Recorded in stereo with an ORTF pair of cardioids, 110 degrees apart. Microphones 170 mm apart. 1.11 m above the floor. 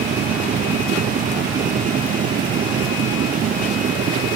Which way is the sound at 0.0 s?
55° right.